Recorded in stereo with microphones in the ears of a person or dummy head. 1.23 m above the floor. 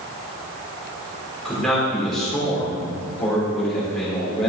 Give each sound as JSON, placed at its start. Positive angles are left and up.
{"t": 1.4, "sound": "a man speaking", "side_deg": 10, "distance_m": 3.5}